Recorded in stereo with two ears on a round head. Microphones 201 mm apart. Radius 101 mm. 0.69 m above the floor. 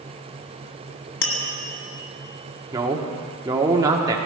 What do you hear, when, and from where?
1.2 s tapping: 60° left (ahead or behind), 1.7 m
2.7 s a man speaking: 20° right (ahead or behind), 1.3 m